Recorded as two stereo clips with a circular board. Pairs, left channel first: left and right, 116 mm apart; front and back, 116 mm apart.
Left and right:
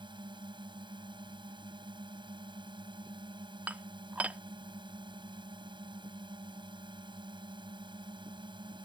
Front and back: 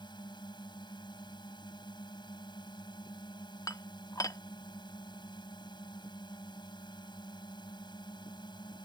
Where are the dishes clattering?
25° right.